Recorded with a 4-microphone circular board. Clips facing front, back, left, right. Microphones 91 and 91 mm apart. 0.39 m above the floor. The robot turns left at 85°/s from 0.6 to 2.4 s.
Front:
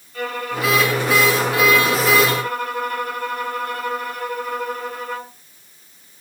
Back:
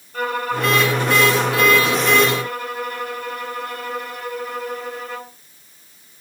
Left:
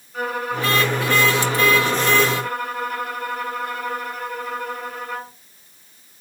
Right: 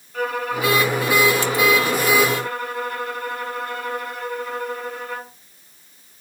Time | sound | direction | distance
0.1 | a violin | 165° left | 2.5 m